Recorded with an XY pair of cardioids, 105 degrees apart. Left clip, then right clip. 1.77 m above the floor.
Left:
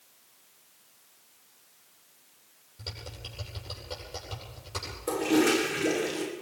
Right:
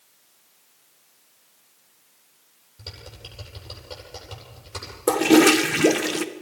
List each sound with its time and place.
2.8 s typing on a keyboard: 10° right, 10 m
5.1 s a toilet flushing: 70° right, 1.7 m